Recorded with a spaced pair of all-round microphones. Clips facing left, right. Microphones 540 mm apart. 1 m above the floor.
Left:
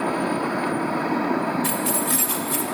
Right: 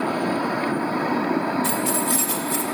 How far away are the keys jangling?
About 3 m.